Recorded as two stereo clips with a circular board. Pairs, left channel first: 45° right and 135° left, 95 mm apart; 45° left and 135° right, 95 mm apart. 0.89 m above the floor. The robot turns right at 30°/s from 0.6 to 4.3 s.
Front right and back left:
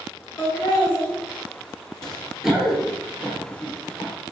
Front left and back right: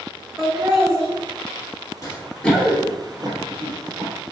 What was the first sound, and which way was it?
Laughter, 90° right.